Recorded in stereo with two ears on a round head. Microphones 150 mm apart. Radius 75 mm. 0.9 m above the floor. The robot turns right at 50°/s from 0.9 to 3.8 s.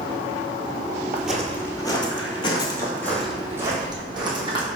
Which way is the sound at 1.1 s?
10° right (ahead or behind).